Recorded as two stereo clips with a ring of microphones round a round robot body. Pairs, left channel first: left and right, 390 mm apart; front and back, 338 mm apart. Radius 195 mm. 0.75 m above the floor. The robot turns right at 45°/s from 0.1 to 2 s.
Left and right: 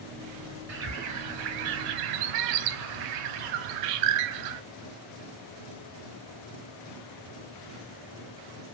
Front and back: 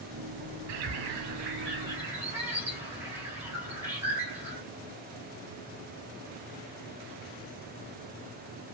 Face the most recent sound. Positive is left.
turn(degrees=-95)